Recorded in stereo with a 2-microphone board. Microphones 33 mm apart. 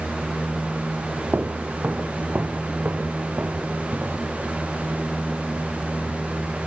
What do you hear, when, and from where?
1.3 s footsteps: 65° right (ahead or behind), 1.0 m